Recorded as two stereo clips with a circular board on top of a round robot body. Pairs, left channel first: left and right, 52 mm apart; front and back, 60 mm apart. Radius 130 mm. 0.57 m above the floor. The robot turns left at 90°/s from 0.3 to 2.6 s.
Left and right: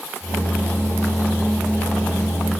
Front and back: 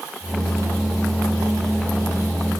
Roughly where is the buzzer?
No buzzer in this recording.